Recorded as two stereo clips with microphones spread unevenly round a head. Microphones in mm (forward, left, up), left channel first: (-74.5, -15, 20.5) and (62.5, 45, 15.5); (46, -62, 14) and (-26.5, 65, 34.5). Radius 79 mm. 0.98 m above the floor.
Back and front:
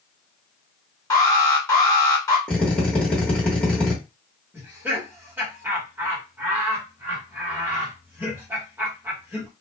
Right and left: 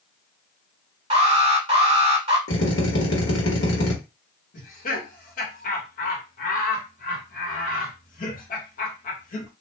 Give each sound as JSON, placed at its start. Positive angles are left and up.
{"t": 1.1, "sound": "an alarm", "azimuth_deg": 150, "distance_m": 1.4}
{"t": 2.5, "sound": "a drill", "azimuth_deg": -75, "distance_m": 1.0}
{"t": 4.5, "sound": "laughter", "azimuth_deg": -55, "distance_m": 1.2}